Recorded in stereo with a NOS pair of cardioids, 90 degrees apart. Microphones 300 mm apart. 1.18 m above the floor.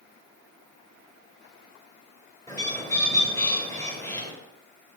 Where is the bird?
10° left, 2.0 m.